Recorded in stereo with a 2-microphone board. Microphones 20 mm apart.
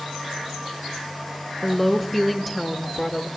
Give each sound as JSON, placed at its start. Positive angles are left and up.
{"t": 1.6, "sound": "a woman speaking", "side_deg": 5, "distance_m": 1.1}